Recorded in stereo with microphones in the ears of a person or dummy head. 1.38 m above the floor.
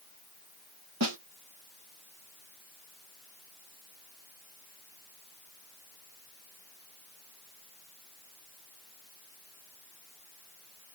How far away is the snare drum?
About 1.3 m.